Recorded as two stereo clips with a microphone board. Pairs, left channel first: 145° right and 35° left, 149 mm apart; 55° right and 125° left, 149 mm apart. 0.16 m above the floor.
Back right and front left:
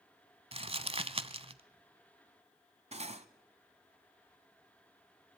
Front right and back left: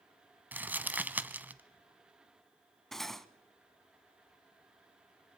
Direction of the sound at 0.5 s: 50° left.